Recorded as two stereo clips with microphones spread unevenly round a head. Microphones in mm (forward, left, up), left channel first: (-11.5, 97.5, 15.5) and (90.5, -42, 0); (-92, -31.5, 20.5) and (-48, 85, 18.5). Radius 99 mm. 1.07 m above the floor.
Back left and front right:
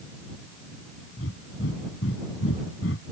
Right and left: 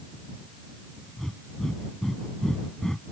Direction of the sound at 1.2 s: 160° left.